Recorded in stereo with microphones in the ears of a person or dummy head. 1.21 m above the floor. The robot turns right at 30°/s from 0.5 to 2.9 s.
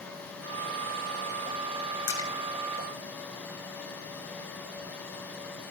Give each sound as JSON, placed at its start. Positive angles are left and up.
{"t": 2.1, "sound": "a splash", "side_deg": 25, "distance_m": 3.0}